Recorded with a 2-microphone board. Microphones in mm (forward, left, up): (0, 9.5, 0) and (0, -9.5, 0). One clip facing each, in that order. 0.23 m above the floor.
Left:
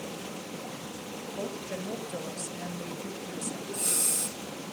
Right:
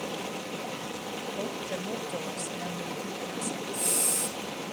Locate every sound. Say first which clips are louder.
0.0 s running water: right 4 dB; 70° right (ahead or behind), 1.3 m
1.4 s a woman speaking: left 1 dB; 10° right (ahead or behind), 1.0 m
3.7 s breathing: even; 10° left (ahead or behind), 5 m